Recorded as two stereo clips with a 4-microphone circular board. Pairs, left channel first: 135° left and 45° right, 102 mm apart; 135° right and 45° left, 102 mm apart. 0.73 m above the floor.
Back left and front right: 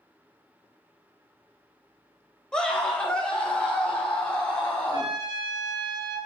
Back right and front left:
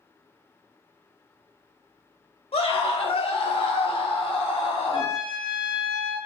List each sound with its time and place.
2.5 s a scream: 145° right, 3 m
4.9 s a trumpet: 90° right, 3.5 m